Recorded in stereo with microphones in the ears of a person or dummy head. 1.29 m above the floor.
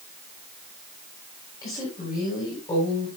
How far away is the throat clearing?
No throat clearing in this recording.